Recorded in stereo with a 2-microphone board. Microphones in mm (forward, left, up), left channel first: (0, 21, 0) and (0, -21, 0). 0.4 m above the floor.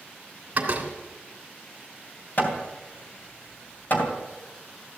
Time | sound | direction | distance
0.6 | a door slam | 35° right (ahead or behind) | 2.5 m
2.4 | hammering | 50° left (ahead or behind) | 3 m